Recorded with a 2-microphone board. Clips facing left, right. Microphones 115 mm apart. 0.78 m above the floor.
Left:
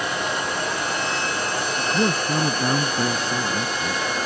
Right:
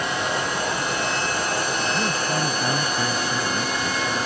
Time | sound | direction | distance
1.8 | a man speaking | 40° left (ahead or behind) | ?